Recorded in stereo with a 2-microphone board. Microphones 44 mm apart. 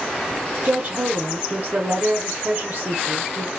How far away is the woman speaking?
About 0.6 m.